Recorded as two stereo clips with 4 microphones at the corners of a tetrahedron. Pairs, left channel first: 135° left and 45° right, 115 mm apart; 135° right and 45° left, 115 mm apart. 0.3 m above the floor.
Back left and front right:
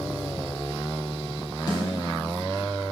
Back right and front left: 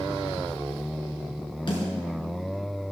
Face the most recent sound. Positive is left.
turn(degrees=-175)